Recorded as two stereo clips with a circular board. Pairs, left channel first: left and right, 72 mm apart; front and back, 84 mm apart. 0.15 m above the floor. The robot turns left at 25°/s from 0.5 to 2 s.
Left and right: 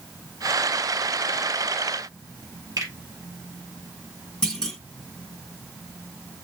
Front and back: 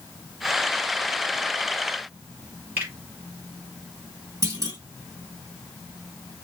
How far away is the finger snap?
About 3.5 m.